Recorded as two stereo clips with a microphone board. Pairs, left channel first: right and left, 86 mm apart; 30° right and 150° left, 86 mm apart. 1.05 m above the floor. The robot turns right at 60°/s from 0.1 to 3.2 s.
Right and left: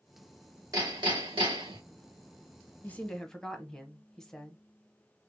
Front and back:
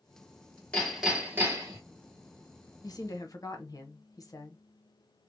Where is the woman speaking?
30° right, 0.8 m; by 4.6 s 10° right, 0.8 m.